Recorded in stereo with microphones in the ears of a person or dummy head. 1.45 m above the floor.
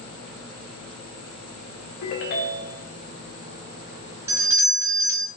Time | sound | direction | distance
2.0 | a ringtone | 55° left (ahead or behind) | 0.5 m
4.3 | a doorbell | 15° right (ahead or behind) | 0.6 m